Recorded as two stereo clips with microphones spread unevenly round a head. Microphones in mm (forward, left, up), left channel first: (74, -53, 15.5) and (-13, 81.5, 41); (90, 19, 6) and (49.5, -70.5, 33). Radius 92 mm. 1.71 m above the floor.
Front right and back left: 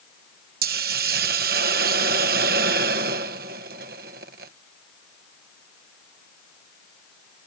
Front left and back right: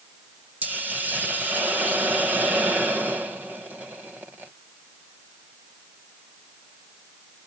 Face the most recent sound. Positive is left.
turn(degrees=165)